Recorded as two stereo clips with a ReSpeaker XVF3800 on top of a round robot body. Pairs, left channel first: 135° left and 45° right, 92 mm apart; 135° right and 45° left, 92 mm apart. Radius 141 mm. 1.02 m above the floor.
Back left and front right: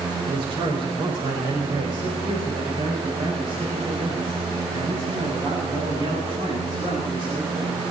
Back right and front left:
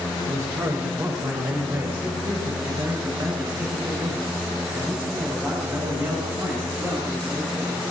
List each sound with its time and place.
0.3 s a man speaking: 10° right, 4 m; by 7.8 s 15° right, 9 m